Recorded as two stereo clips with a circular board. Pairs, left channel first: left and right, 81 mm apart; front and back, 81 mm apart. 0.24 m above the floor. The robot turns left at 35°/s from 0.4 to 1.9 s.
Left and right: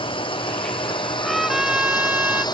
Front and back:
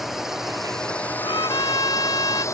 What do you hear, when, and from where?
0.0 s a drone: 95° left; by 2.5 s 55° left
1.2 s a trumpet: 5° left; by 2.5 s 20° right